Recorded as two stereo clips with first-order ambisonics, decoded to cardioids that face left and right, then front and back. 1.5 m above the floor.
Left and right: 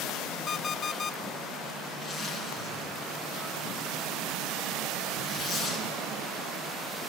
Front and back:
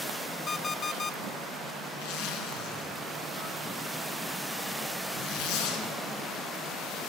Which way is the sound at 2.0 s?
5° right.